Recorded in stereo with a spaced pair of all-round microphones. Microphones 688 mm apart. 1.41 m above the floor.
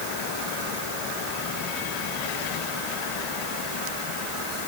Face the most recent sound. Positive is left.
No sound to turn to.